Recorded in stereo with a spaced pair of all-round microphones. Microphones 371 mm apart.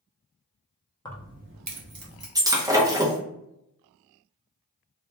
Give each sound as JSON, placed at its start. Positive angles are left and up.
{"t": 1.1, "sound": "keys jangling", "side_deg": 10, "distance_m": 0.5}
{"t": 2.4, "sound": "breaking glass", "side_deg": -10, "distance_m": 0.7}